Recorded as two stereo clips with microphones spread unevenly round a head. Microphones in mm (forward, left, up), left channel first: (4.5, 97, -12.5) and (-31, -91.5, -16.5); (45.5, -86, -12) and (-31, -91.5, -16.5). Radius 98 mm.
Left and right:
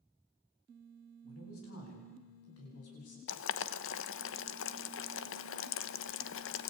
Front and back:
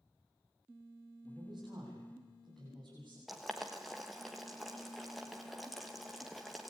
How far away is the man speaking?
About 9 m.